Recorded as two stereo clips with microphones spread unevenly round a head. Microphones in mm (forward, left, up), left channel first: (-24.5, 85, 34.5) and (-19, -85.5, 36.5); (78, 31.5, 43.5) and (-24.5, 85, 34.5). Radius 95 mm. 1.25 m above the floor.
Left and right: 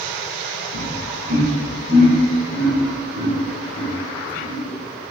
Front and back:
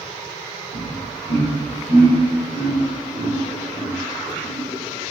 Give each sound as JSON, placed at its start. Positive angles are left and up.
{"t": 0.7, "sound": "laughter", "azimuth_deg": 135, "distance_m": 3.0}